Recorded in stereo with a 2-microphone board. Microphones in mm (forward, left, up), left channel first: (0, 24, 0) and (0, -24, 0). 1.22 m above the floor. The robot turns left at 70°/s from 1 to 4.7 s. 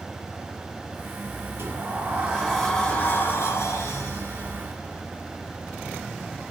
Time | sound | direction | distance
1.6 | a sliding door | 110° right | 2.5 m